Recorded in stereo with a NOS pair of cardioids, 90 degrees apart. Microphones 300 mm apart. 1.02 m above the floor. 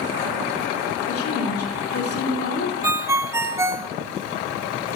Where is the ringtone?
10° right, 0.8 m.